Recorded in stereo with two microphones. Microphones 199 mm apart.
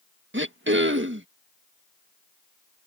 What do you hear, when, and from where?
0.3 s throat clearing: 70° right (ahead or behind)